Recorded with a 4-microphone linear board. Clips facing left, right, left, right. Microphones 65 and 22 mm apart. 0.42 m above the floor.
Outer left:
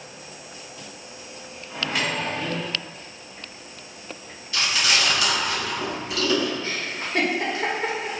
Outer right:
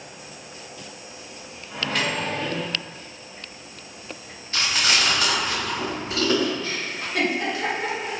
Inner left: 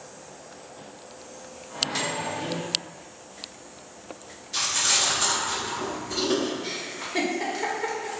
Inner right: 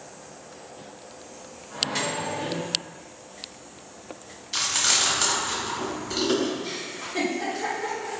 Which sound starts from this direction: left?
A giggle, at 6.6 s.